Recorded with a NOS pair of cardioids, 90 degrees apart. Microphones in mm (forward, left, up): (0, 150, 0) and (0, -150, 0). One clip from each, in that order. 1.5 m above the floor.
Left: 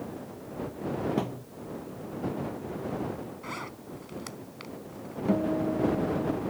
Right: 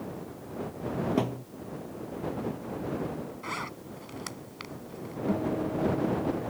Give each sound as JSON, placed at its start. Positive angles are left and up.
{"t": 1.2, "sound": "a thud", "azimuth_deg": -20}
{"t": 3.4, "sound": "a zipper", "azimuth_deg": -30}
{"t": 5.3, "sound": "a guitar", "azimuth_deg": 25}